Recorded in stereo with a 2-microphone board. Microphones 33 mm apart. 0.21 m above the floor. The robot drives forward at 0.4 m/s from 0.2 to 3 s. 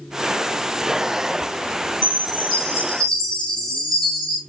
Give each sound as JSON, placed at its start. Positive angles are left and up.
{"t": 2.0, "sound": "a chime", "side_deg": 20, "distance_m": 2.0}